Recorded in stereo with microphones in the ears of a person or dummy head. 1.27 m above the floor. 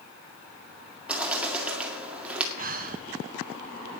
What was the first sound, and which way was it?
A bird, 10° right (ahead or behind).